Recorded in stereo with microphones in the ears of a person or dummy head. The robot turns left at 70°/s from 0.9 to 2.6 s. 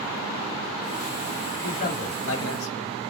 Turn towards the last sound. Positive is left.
turn(degrees=85)